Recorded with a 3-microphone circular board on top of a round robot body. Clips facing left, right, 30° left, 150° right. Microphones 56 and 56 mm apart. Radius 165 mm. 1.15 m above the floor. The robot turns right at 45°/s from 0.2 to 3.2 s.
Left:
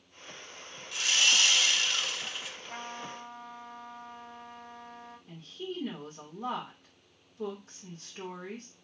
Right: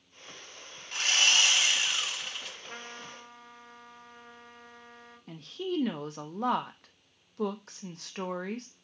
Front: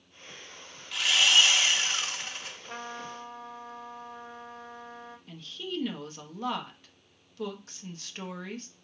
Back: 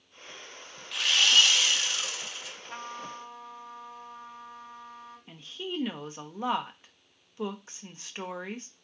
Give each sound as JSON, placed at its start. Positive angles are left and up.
{"t": 0.9, "sound": "sawing", "azimuth_deg": -60, "distance_m": 0.9}
{"t": 2.7, "sound": "a trumpet", "azimuth_deg": -35, "distance_m": 2.0}
{"t": 5.3, "sound": "a woman speaking", "azimuth_deg": -80, "distance_m": 0.9}